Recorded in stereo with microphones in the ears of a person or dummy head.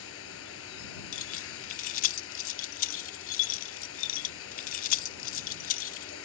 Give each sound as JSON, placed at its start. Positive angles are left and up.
{"t": 0.0, "sound": "running water", "side_deg": 90}
{"t": 1.1, "sound": "keys jangling", "side_deg": 50}